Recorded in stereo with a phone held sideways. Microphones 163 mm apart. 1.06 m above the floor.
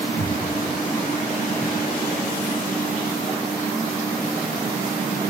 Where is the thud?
55° left (ahead or behind), 7 m.